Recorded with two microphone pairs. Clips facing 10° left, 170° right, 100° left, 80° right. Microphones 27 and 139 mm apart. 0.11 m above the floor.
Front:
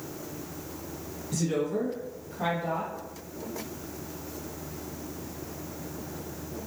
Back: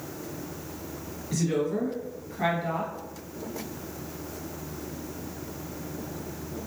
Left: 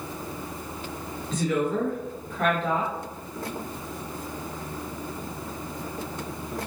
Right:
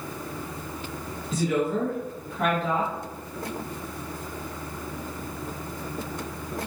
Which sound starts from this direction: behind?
A woman speaking, at 1.3 s.